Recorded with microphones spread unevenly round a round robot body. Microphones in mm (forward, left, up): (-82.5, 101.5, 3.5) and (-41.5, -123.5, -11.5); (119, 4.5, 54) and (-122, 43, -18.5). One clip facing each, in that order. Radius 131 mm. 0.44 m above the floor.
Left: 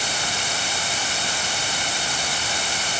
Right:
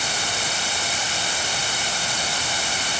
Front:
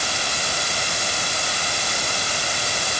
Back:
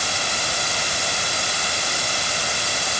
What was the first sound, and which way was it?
Only background noise.